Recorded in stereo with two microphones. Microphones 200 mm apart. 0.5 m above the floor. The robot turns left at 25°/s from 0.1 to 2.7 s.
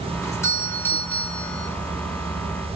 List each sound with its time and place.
0.2 s a doorbell: 15° left (ahead or behind), 1.1 m; by 1.7 s 5° left (ahead or behind), 1.1 m